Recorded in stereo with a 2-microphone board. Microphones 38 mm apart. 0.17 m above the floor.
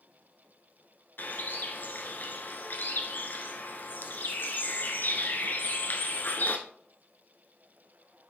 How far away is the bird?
About 1.3 m.